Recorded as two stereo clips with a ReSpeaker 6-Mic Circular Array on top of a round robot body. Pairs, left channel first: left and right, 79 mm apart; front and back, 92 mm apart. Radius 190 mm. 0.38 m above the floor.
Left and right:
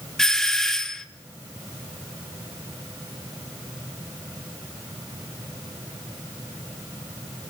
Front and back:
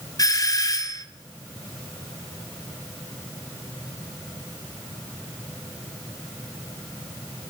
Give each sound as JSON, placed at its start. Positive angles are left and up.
{"t": 0.2, "sound": "a doorbell", "azimuth_deg": 10, "distance_m": 1.9}